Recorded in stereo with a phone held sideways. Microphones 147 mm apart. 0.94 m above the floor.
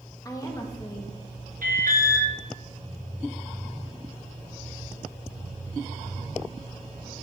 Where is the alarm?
75° right (ahead or behind), 0.9 m.